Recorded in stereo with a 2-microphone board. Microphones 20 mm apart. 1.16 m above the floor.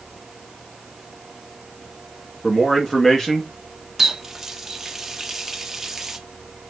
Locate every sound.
2.4 s a man speaking: 25° left (ahead or behind), 2.5 m; by 3.5 s 35° left (ahead or behind), 2.0 m
4.0 s a running tap: 15° right (ahead or behind), 1.3 m